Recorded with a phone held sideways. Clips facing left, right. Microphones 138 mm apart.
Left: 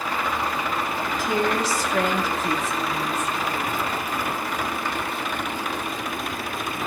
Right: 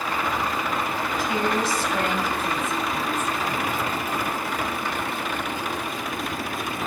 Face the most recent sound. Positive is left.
turn(degrees=80)